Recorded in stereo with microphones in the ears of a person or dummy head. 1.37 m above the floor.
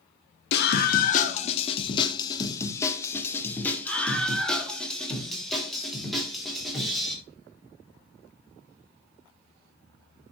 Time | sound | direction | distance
0.5 | a scream | 65° left (ahead or behind) | 1.0 m